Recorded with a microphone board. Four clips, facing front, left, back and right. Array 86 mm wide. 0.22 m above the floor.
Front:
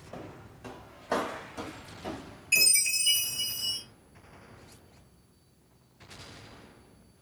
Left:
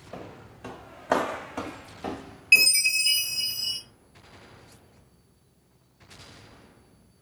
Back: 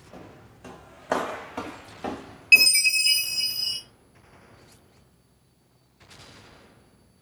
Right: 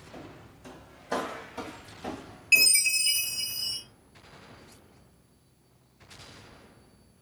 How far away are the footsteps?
About 0.9 m.